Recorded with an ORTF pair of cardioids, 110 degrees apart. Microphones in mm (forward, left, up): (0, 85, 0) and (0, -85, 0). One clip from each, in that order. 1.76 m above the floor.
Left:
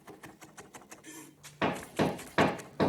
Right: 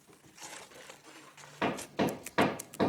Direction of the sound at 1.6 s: 20° left.